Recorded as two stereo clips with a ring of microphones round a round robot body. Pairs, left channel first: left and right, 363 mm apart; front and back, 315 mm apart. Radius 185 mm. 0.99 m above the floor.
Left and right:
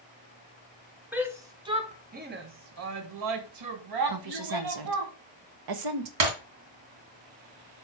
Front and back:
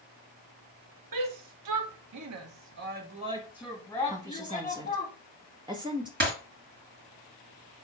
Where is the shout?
175° right, 1.4 m; by 5.1 s 60° right, 1.5 m.